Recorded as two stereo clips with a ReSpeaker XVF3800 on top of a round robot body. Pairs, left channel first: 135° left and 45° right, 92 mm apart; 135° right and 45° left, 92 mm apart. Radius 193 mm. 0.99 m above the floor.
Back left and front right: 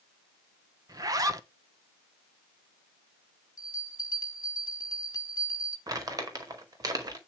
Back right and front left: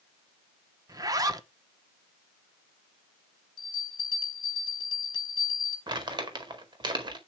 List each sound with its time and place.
0.9 s a zipper: straight ahead, 1.3 m
3.6 s a bell: 175° right, 0.7 m
5.9 s crumpling: 5° left, 2.0 m